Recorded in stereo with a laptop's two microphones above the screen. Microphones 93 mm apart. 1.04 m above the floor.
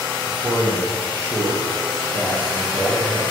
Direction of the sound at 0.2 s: 30° right (ahead or behind).